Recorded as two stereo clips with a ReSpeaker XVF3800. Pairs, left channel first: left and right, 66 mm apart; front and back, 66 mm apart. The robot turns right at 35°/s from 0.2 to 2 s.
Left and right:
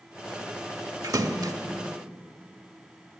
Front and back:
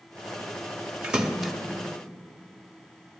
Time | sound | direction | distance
1.0 | a splash | 105° right | 0.6 m